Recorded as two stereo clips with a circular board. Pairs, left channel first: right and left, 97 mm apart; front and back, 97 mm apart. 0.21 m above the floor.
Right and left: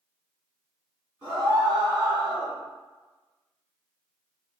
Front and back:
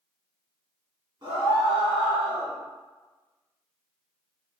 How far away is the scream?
About 1.8 m.